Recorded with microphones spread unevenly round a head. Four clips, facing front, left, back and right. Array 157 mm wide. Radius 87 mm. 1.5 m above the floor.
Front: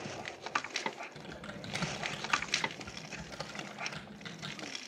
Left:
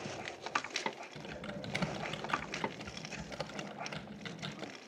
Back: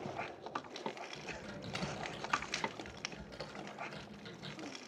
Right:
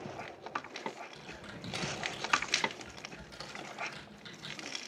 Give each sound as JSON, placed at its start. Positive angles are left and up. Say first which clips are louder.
{"t": 1.1, "sound": "typing on a keyboard", "louder": "left 4 dB, front 1 dB", "azimuth_deg": 80, "distance_m": 1.1}